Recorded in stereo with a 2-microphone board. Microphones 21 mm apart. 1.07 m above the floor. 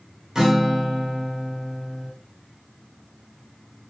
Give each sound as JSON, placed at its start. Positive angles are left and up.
{"t": 0.3, "sound": "a guitar", "side_deg": -25, "distance_m": 0.9}